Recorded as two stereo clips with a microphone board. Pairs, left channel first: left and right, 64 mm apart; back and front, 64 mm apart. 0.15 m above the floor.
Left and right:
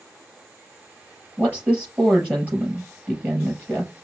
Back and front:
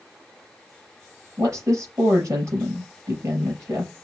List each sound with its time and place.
1.4 s a woman speaking: 25° right, 3.5 m